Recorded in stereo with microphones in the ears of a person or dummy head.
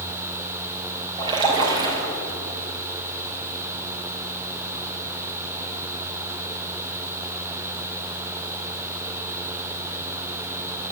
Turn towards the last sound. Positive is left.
turn(degrees=-25)  # may be behind; listen again after turning